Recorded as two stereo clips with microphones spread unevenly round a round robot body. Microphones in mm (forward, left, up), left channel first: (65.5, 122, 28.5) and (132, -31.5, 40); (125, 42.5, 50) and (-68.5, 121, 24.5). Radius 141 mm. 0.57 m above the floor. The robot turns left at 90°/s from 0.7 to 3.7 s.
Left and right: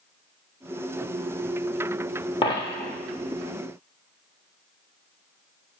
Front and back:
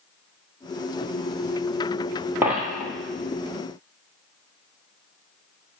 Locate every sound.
2.4 s a dropped coin: 75° left, 0.6 m; by 2.9 s 30° left, 0.6 m